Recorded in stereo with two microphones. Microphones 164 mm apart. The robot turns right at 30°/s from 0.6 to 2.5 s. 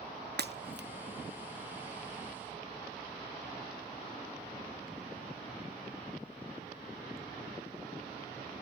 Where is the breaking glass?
85° right, 0.6 m.